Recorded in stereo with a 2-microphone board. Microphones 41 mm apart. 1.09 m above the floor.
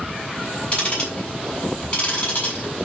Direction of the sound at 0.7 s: 35° left (ahead or behind).